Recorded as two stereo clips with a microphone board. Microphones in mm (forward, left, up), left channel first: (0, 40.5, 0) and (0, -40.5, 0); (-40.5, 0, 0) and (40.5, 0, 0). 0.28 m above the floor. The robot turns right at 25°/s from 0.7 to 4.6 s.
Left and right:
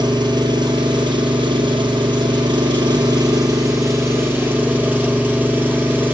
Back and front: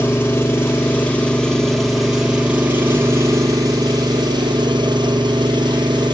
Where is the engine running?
115° right, 1.6 m; by 6.2 s 20° right, 1.6 m.